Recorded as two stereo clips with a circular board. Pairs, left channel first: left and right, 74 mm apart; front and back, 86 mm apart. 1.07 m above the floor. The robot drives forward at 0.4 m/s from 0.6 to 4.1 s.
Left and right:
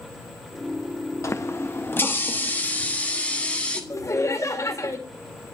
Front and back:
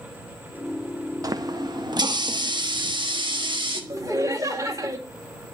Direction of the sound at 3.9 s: 130° left.